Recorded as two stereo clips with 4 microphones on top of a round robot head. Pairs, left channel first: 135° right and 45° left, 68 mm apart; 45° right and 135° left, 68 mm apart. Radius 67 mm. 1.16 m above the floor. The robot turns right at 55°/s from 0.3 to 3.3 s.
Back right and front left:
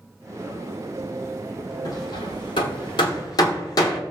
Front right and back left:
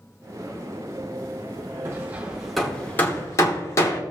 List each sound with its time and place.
1.9 s hammering: 175° right, 1.3 m; by 4.0 s 95° right, 1.3 m